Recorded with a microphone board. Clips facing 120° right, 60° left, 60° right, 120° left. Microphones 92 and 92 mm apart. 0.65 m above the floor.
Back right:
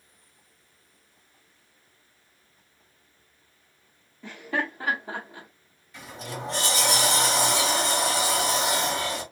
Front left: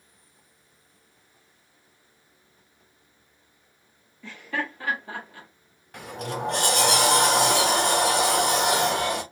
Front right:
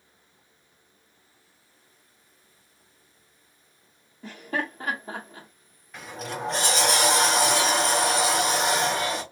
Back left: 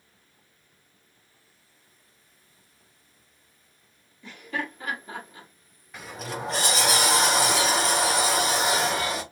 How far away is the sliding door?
About 0.9 m.